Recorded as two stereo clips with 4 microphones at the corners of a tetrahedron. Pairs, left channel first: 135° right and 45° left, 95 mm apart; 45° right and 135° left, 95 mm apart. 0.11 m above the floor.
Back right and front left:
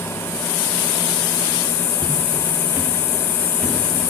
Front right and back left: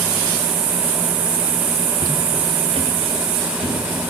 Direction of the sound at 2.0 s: 80° left.